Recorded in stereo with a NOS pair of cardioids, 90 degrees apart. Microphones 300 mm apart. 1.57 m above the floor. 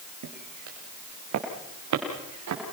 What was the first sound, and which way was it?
Footsteps, 70° right.